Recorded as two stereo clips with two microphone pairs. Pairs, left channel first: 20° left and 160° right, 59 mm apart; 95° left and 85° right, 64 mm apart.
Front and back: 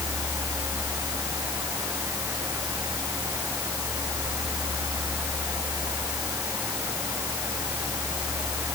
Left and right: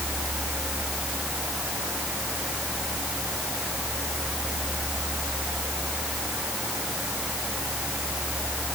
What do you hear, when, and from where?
Only background noise.